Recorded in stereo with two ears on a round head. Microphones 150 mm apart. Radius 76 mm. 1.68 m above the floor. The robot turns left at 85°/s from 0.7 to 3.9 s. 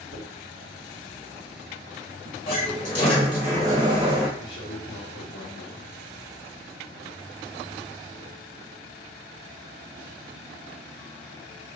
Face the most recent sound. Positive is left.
turn(degrees=80)